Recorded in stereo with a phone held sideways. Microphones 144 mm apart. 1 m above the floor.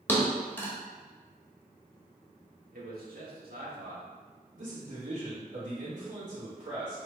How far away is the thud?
About 1.1 m.